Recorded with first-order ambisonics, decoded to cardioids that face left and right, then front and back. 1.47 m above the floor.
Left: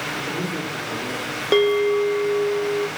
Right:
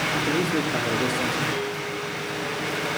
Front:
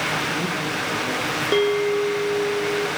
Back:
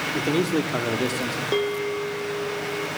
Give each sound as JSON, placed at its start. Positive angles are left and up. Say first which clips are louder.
{"t": 0.1, "sound": "a man speaking", "louder": "right 3 dB, even", "azimuth_deg": -160, "distance_m": 4.0}
{"t": 1.5, "sound": "a bell", "louder": "left 11 dB, front 6 dB", "azimuth_deg": 75, "distance_m": 1.7}